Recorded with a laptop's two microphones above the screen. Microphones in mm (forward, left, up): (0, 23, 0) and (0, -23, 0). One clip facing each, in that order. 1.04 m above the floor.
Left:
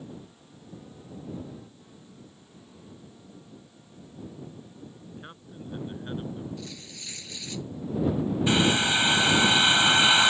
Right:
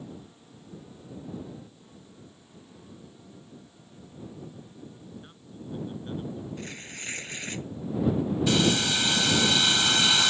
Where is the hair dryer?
25° left (ahead or behind).